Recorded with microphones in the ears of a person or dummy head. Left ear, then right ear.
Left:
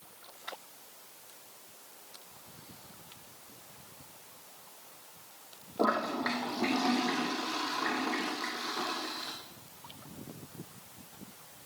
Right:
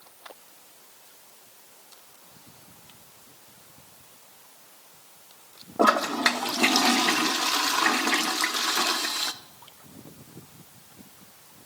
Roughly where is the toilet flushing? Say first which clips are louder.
Right 9 dB; right.